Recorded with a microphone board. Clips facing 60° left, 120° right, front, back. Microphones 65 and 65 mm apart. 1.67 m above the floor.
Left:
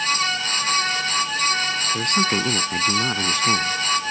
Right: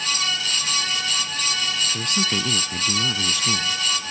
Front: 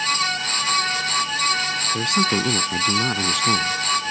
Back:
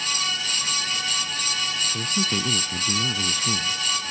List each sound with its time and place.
1.9 s a man speaking: 15° left